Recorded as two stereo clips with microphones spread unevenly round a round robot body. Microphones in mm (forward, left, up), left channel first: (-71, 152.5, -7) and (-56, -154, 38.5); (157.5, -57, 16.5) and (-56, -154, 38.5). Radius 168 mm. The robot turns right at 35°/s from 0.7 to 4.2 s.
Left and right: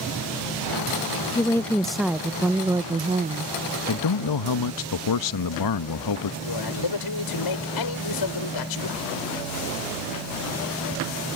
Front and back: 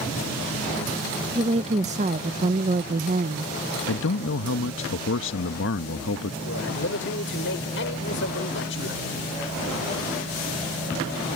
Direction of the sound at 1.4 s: 145° left.